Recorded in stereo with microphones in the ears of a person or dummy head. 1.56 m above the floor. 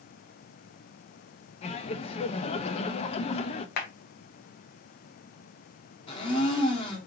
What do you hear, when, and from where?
1.6 s laughter: 35° left (ahead or behind), 0.5 m
3.8 s a clap: 60° left (ahead or behind), 1.1 m
6.1 s a blender: 30° left (ahead or behind), 1.6 m